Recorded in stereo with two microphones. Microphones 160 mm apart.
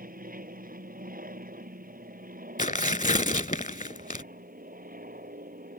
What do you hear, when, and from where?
0.0 s an aircraft: 60° right (ahead or behind)
2.6 s tearing paper: 55° left (ahead or behind)